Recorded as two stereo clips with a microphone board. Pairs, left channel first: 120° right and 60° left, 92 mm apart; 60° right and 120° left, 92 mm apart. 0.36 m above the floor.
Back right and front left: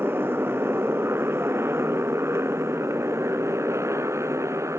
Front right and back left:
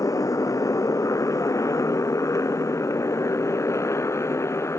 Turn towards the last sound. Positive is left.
turn(degrees=0)